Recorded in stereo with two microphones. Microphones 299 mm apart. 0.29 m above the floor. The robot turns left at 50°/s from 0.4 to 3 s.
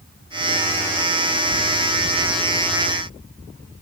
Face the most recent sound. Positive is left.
No sound to turn to.